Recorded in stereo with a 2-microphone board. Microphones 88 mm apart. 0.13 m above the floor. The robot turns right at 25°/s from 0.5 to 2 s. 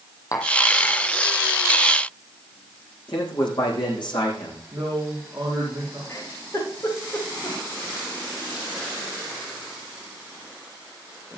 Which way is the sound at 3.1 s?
65° left (ahead or behind).